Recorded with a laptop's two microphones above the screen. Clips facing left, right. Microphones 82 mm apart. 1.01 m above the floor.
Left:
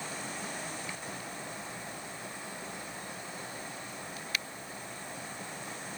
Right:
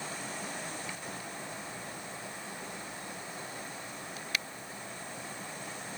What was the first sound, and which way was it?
Only background noise.